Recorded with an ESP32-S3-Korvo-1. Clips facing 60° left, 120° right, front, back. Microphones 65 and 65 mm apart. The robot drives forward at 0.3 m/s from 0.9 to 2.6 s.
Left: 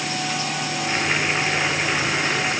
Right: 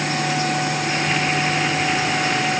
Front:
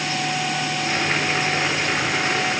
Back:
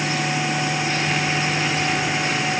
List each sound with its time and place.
Only background noise.